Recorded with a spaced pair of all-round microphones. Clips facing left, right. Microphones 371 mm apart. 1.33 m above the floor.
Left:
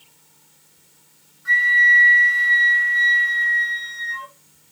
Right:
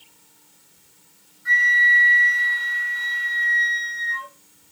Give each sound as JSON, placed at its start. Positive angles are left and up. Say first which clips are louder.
{"t": 1.4, "sound": "a flute", "louder": "left 1 dB", "side_deg": 65, "distance_m": 1.8}